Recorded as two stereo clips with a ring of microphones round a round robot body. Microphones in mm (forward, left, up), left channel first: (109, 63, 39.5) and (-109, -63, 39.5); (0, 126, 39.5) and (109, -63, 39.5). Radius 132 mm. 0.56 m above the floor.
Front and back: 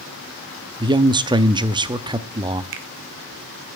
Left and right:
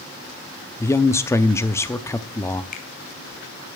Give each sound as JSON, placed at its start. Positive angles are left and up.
{"t": 0.8, "sound": "a man speaking", "azimuth_deg": 175, "distance_m": 0.7}
{"t": 2.7, "sound": "a finger snap", "azimuth_deg": 175, "distance_m": 1.6}